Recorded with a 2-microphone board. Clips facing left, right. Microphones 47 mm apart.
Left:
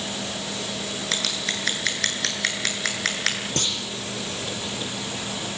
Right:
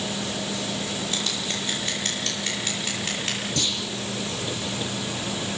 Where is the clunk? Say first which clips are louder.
Even; 45° left (ahead or behind), 7 m.